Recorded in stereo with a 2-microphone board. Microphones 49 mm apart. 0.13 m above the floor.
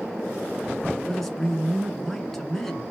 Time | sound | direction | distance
1.1 | a man speaking | 5° left (ahead or behind) | 1.1 m